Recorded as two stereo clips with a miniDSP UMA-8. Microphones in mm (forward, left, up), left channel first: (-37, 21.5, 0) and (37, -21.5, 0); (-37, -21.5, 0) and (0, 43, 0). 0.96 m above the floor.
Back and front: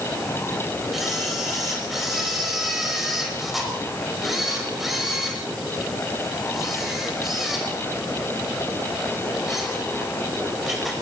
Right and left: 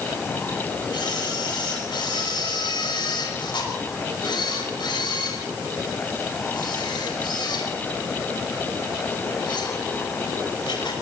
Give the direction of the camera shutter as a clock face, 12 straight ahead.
4 o'clock.